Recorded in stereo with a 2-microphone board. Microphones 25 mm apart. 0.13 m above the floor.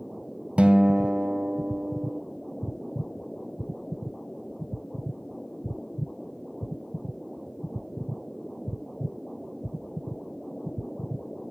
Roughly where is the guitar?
Right.